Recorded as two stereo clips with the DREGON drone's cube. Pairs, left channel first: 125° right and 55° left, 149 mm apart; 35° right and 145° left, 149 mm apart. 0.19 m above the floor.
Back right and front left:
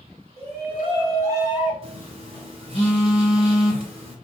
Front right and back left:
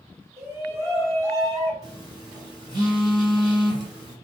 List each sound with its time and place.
0.4 s a shout: 75° left, 1.8 m; by 1.7 s 130° left, 1.3 m
1.8 s a phone buzzing: 90° left, 1.5 m